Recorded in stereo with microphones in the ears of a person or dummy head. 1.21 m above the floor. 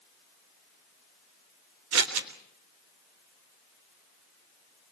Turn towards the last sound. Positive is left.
turn(degrees=-85)